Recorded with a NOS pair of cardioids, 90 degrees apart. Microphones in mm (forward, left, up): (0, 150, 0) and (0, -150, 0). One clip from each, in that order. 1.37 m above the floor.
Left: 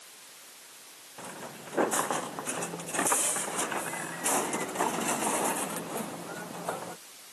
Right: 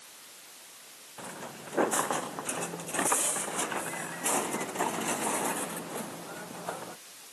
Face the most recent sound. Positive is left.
turn(degrees=25)